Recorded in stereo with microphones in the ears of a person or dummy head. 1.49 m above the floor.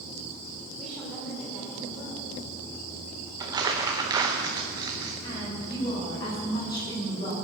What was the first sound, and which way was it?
A woman speaking, 5° right (ahead or behind).